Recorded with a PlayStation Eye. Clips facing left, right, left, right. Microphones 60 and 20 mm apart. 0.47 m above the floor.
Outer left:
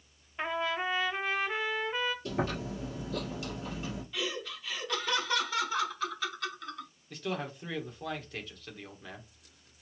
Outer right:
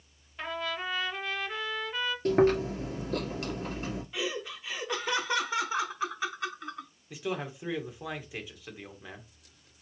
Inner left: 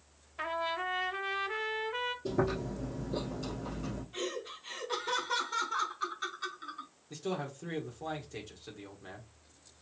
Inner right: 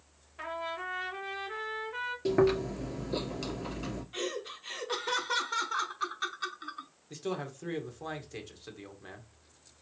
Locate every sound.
0.4 s a trumpet: 25° left (ahead or behind), 0.9 m
2.2 s chewing: 55° right (ahead or behind), 2 m
4.1 s laughter: 20° right (ahead or behind), 0.8 m
7.1 s a man speaking: 10° right (ahead or behind), 1.1 m